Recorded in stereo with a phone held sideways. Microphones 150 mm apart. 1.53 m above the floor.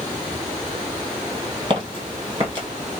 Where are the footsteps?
35° right (ahead or behind), 2 m.